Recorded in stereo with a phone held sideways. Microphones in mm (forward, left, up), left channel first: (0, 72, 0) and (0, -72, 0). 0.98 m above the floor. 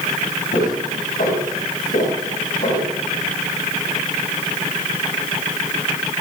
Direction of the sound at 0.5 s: 75° left (ahead or behind).